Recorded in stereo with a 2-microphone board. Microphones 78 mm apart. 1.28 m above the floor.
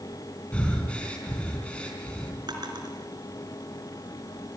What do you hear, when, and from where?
0.5 s breathing: 15° left (ahead or behind), 4 m
2.5 s a drawer: 65° right (ahead or behind), 4 m